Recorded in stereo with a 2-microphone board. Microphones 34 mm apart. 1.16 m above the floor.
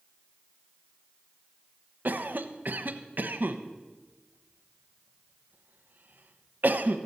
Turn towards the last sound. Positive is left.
turn(degrees=-60)  # may be behind; listen again after turning